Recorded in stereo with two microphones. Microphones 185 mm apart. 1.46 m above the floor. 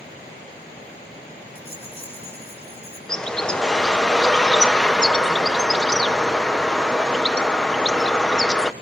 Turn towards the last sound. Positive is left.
turn(degrees=5)  # may be behind; listen again after turning